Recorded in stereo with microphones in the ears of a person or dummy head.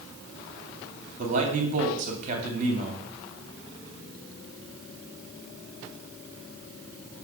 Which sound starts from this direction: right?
A man speaking, at 1.2 s.